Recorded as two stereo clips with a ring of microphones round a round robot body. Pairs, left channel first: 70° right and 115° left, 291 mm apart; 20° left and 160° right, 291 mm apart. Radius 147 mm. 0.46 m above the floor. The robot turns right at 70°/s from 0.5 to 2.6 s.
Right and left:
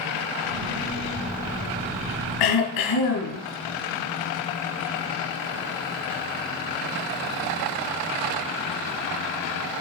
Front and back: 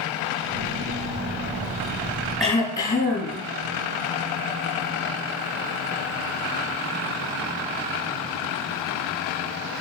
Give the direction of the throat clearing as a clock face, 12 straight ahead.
2 o'clock.